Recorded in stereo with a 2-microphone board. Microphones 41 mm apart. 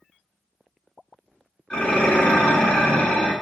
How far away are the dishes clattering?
About 1.0 m.